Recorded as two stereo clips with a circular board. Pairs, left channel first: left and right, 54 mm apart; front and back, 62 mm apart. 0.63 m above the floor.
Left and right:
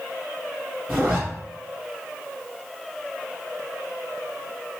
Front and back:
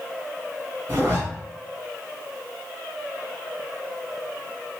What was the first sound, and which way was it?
A zipper, 150° right.